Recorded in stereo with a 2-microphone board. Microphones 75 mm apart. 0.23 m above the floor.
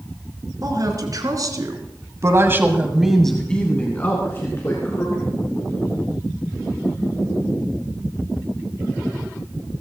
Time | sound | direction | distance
0.6 | a woman speaking | 55° right (ahead or behind) | 3 m